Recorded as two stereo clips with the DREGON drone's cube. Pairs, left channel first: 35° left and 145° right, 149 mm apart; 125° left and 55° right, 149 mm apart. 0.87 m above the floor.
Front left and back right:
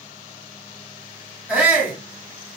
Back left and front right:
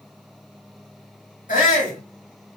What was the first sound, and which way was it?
A shout, 135° left.